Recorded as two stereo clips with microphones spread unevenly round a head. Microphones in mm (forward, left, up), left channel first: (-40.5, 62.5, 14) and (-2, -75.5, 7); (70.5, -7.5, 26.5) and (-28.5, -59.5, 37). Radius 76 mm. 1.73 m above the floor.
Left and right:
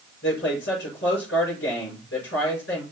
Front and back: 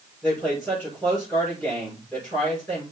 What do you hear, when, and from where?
0.2 s a woman speaking: 115° left, 6 m